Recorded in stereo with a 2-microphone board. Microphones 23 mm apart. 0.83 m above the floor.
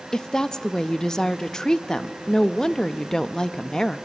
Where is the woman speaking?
25° left (ahead or behind), 0.6 m.